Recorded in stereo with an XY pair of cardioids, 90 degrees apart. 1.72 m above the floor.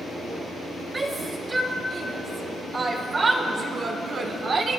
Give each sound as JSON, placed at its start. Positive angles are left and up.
{"t": 0.9, "sound": "a shout", "azimuth_deg": -35, "distance_m": 3.0}